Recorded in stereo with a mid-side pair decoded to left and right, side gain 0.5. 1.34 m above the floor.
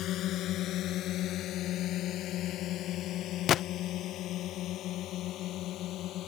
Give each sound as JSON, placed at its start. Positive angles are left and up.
{"t": 0.0, "sound": "a drone", "azimuth_deg": 65}
{"t": 3.5, "sound": "a gunshot", "azimuth_deg": 60}